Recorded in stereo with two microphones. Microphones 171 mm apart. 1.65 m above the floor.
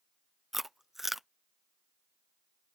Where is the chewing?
Centre (ahead or behind).